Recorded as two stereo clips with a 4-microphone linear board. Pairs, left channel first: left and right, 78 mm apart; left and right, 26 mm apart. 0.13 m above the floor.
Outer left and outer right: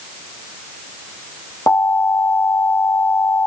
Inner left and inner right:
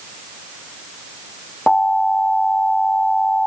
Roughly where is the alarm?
Left.